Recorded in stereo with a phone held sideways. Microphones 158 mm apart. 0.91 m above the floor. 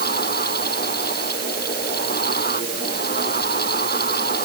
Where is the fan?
85° left.